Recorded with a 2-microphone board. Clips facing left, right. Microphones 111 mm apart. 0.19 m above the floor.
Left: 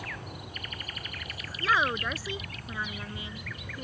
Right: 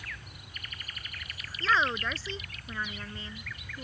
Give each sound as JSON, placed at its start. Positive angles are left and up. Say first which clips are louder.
{"t": 0.0, "sound": "an aircraft", "louder": "left 7 dB", "side_deg": 65}
{"t": 1.6, "sound": "a woman speaking", "louder": "left 1 dB", "side_deg": 10}